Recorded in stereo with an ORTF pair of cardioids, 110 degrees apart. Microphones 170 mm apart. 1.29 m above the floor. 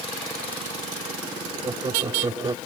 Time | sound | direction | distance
1.6 | laughter | 25° right | ?